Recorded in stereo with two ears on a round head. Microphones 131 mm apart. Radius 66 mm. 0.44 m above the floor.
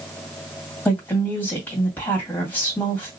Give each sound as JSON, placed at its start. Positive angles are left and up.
{"t": 0.8, "sound": "a woman speaking", "side_deg": 10, "distance_m": 2.0}